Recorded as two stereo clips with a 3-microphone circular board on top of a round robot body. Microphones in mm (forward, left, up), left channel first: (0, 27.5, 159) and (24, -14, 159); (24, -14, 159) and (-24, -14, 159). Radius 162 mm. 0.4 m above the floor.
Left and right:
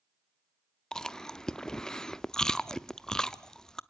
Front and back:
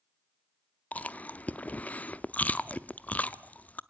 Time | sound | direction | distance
0.9 | chewing | 45° left | 0.8 m